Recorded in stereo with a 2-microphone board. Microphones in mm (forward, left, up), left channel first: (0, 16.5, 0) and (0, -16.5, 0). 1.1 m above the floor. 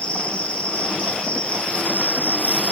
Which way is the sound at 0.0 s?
35° left (ahead or behind).